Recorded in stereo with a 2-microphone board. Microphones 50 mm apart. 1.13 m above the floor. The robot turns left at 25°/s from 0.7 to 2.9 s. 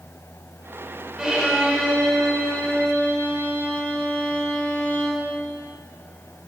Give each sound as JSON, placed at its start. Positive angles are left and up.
{"t": 1.2, "sound": "a violin", "azimuth_deg": -165, "distance_m": 1.5}